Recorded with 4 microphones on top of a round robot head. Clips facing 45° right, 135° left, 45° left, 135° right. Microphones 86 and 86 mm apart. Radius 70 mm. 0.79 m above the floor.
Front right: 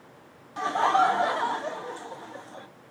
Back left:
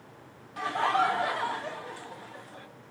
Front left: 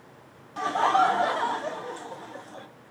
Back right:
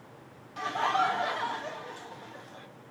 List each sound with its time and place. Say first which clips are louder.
0.6 s laughter: front right 4 dB, front left 6 dB; 5° left, 1.4 m